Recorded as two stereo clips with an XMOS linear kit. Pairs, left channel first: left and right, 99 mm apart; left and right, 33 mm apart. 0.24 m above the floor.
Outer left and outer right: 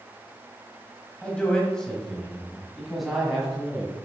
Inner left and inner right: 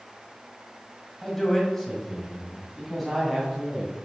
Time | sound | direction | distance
1.2 | a man speaking | 10° left (ahead or behind) | 1.7 m